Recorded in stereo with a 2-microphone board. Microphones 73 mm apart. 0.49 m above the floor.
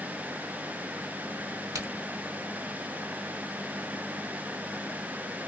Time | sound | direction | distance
1.8 | a crack | 55° right (ahead or behind) | 1.9 m